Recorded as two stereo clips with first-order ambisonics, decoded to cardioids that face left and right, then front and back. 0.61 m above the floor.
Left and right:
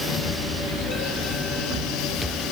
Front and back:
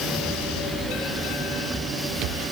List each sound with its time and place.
Only background noise.